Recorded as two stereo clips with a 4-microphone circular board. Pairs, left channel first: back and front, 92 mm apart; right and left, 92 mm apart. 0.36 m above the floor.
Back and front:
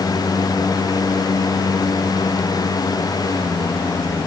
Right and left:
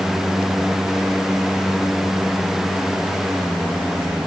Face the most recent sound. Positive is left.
No sound to turn to.